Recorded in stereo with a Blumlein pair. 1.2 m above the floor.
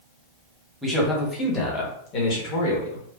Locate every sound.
0.8 s a man speaking: 5° right, 1.1 m; by 3.0 s 55° left, 1.6 m